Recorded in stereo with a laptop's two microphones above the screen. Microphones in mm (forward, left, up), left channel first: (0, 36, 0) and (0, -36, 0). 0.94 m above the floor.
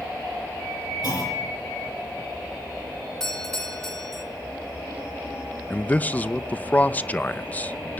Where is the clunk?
55° left (ahead or behind), 8.5 m.